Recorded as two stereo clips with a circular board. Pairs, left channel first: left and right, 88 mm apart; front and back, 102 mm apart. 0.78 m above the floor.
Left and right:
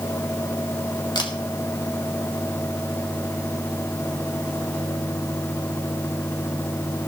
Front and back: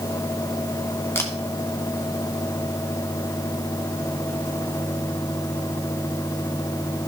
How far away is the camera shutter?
About 1.8 m.